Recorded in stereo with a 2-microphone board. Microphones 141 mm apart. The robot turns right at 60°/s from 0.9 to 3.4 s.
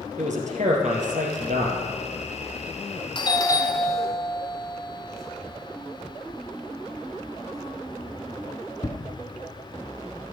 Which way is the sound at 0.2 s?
115° right.